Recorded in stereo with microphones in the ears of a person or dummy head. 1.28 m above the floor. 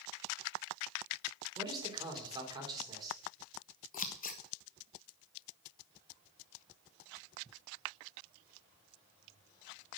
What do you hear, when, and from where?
1.6 s a man speaking: 25° right (ahead or behind), 3 m
3.9 s scissors: 45° left (ahead or behind), 0.9 m